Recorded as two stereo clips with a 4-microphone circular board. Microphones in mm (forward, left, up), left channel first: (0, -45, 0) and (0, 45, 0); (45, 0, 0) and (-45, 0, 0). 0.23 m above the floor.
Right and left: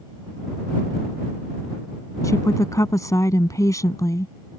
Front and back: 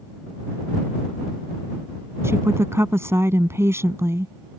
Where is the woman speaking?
130° right.